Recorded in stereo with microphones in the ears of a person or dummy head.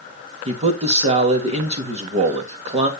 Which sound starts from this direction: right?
A man speaking, at 0.5 s.